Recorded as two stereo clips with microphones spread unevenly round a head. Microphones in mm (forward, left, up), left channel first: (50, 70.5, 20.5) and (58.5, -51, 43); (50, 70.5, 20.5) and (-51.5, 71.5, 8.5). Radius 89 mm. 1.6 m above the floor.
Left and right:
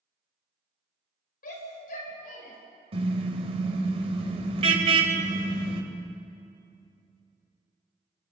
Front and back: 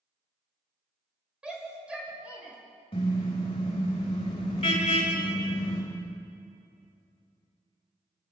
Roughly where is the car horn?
Ahead right.